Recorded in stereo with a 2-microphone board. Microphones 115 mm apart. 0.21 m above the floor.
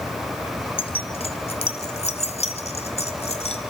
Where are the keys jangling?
50° left (ahead or behind), 1.6 m; by 3.6 s 65° left (ahead or behind), 2.5 m.